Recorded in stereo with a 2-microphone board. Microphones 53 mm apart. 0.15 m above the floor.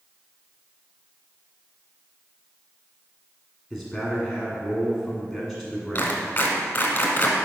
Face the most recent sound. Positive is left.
turn(degrees=35)  # may be behind; listen again after turning